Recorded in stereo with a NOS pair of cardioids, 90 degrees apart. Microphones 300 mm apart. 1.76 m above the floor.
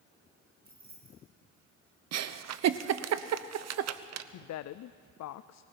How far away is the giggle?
About 0.9 m.